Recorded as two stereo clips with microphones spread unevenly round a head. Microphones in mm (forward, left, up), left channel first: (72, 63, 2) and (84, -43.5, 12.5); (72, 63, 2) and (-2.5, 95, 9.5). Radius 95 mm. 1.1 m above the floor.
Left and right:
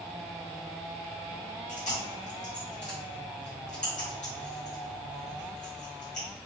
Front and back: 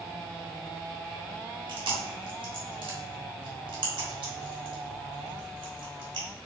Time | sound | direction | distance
1.7 | chewing | 140° left | 1.6 m